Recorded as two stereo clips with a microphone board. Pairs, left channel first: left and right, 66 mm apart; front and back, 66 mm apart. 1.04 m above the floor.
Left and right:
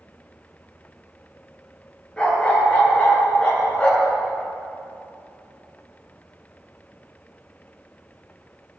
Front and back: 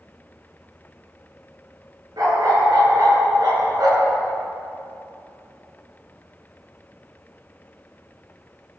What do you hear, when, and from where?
2.2 s a dog barking: 165° left, 7.5 m